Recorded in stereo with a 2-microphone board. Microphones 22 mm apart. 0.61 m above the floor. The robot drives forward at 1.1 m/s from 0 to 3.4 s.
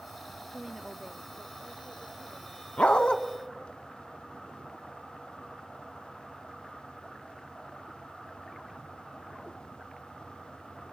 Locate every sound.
0.5 s a woman speaking: 20° right (ahead or behind), 0.6 m; by 2.7 s 5° right (ahead or behind), 2.5 m
2.8 s a dog barking: 65° left (ahead or behind), 1.3 m; by 3.2 s 50° left (ahead or behind), 1.6 m